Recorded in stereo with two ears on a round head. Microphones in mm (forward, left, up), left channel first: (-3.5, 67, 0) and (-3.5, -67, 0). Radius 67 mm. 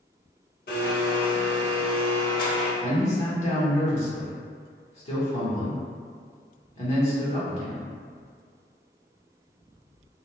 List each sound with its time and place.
0.7 s a blender: 65° left (ahead or behind), 0.8 m
2.8 s a man speaking: 45° left (ahead or behind), 1.0 m